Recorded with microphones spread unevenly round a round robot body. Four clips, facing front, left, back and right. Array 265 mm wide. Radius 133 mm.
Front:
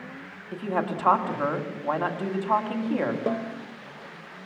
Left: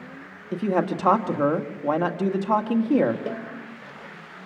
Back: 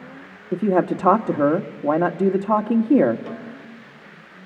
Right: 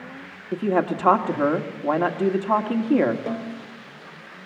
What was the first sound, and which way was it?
A man speaking, straight behind.